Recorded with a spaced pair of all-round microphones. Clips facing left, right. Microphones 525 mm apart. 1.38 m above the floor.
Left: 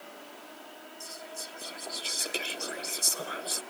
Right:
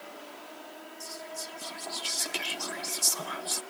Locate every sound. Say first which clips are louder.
1.0 s whispering: right 2 dB; 20° right (ahead or behind), 0.5 m